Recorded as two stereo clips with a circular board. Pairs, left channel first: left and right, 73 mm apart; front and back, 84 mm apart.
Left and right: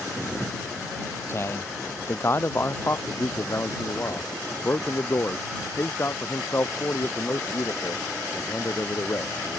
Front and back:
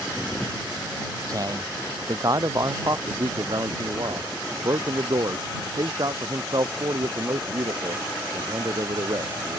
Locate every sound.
1.3 s a man speaking: 140° left
3.1 s a man speaking: 145° left